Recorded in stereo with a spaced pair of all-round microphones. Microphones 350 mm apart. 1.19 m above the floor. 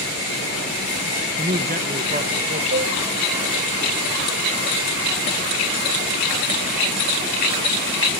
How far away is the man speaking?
About 1.2 m.